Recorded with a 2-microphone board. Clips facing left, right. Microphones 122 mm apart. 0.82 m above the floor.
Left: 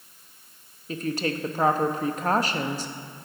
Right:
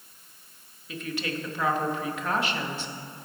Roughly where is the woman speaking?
Left.